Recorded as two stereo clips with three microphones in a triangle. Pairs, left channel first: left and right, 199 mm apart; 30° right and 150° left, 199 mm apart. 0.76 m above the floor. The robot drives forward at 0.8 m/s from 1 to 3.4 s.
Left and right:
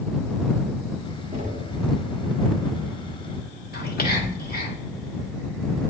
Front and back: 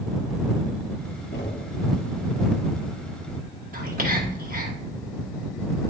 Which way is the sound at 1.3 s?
50° right.